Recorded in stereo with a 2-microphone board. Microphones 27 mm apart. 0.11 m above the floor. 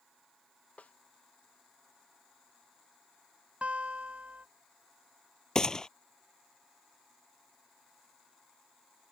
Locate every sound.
0.8 s a snare drum: 70° left (ahead or behind)
3.6 s a guitar: 55° right (ahead or behind)
5.5 s a gunshot: 25° left (ahead or behind)